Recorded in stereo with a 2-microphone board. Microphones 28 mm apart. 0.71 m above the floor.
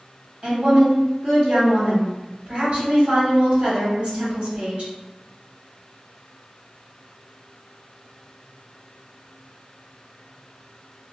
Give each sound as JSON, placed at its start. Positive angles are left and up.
{"t": 0.4, "sound": "a woman speaking", "side_deg": -50, "distance_m": 1.6}